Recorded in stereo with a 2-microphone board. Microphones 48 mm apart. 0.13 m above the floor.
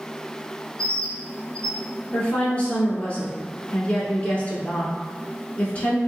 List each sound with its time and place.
0.8 s a bird: 20° left (ahead or behind), 0.7 m
2.1 s a woman speaking: 30° left (ahead or behind), 1.2 m